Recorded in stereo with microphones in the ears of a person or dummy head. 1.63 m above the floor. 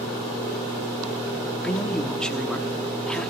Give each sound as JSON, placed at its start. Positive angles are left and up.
{"t": 1.6, "sound": "a man speaking", "side_deg": 10, "distance_m": 0.9}